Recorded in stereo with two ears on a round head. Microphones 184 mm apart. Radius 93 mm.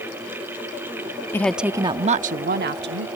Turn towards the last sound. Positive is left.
turn(degrees=-65)  # may be behind; listen again after turning